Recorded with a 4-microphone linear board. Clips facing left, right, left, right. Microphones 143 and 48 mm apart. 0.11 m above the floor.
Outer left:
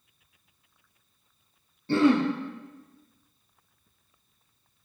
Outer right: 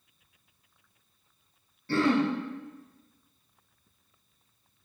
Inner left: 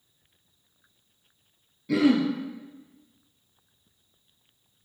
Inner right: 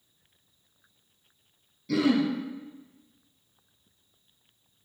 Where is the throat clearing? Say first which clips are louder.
Outer left 4 dB, inner left 3 dB; 20° left (ahead or behind), 0.7 m.